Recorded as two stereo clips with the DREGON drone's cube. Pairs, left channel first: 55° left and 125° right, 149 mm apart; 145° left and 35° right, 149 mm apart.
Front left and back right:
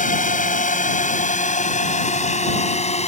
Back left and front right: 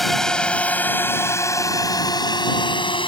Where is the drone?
55° left; by 3.1 s 95° left.